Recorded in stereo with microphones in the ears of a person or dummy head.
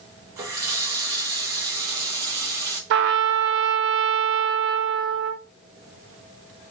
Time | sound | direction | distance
0.4 | a running tap | 15° right (ahead or behind) | 0.8 m
2.9 | a trumpet | 65° right (ahead or behind) | 0.6 m